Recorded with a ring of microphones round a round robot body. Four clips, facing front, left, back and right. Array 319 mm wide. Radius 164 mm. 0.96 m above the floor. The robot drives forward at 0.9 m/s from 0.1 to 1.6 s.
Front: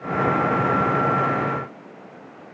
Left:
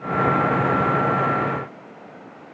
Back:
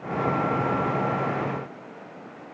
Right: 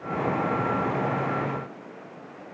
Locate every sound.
Only background noise.